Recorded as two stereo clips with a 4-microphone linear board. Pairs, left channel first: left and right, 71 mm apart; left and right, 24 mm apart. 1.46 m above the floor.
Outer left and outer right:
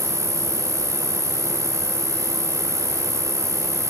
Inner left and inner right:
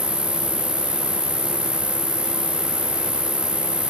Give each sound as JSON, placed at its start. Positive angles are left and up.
{"t": 0.0, "sound": "an insect", "side_deg": 70, "distance_m": 2.5}